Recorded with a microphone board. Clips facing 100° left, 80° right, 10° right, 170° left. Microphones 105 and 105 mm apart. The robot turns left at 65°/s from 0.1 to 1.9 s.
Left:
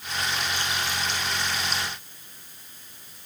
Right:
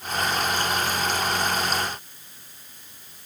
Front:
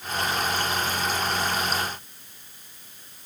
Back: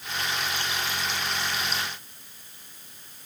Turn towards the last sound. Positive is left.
No sound to turn to.